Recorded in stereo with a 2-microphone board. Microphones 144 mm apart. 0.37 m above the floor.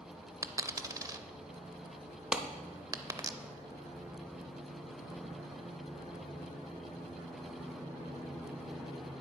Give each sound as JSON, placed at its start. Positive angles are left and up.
{"t": 0.4, "sound": "a dropped coin", "side_deg": -25, "distance_m": 0.5}
{"t": 2.3, "sound": "a clap", "side_deg": -5, "distance_m": 0.8}